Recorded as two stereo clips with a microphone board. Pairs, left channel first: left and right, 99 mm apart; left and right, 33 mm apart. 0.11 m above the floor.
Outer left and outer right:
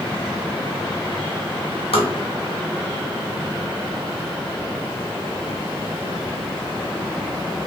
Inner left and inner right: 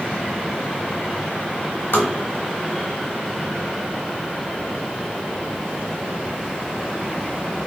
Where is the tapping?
80° left, 1.0 m.